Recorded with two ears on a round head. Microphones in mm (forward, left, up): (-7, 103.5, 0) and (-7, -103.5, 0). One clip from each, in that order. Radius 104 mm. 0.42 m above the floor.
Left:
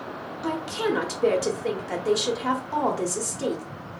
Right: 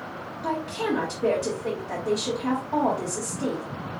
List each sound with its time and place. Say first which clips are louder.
0.4 s a woman speaking: left 1 dB; 45° left (ahead or behind), 1.0 m